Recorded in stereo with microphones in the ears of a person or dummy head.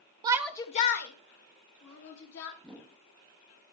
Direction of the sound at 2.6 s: 5° left (ahead or behind).